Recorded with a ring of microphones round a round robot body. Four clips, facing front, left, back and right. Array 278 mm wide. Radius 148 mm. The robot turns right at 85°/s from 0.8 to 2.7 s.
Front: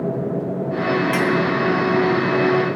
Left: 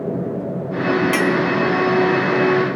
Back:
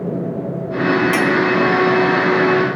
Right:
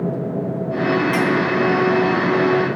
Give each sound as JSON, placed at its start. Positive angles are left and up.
{"t": 1.1, "sound": "a clink", "azimuth_deg": 115, "distance_m": 1.6}